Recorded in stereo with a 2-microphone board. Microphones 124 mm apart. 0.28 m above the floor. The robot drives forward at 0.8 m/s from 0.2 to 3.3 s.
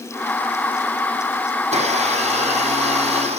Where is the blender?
65° right (ahead or behind), 8.5 m; by 3.4 s 60° right (ahead or behind), 9 m.